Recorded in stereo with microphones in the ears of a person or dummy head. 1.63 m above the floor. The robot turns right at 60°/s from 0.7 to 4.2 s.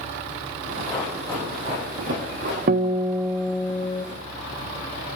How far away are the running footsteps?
About 5 m.